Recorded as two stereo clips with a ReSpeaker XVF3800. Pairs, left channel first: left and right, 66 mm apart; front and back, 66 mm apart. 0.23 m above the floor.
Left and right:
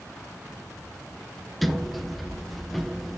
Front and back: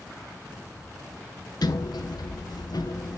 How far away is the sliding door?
About 0.7 m.